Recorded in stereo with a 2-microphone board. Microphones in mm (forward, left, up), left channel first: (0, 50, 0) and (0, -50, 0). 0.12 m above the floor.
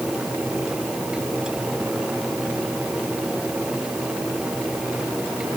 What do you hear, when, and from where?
Only background noise.